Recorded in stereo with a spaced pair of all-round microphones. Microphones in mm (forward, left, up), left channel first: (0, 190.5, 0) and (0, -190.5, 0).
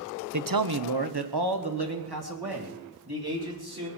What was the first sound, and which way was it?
A man speaking, 50° right (ahead or behind).